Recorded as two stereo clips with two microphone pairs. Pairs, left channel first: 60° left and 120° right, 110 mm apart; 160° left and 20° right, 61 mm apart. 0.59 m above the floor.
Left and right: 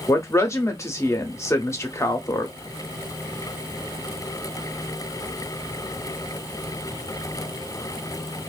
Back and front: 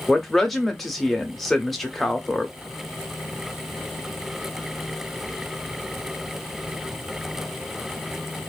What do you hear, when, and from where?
0.1 s a woman speaking: 80° left, 0.6 m